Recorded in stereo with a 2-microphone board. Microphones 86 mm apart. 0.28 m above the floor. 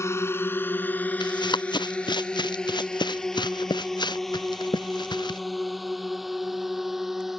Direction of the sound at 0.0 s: 35° left (ahead or behind).